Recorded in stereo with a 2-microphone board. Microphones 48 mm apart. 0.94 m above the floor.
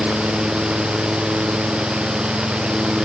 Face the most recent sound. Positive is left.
No sound to turn to.